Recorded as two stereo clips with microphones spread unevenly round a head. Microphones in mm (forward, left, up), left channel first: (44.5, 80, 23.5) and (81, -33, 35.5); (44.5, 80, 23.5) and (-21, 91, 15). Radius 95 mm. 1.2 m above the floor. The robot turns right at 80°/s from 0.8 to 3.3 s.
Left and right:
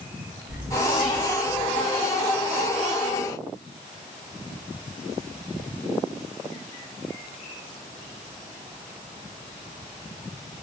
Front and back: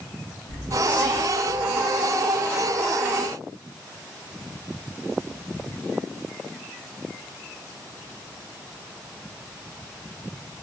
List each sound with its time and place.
0.5 s whispering: 5° left, 1.3 m; by 1.8 s 90° left, 1.3 m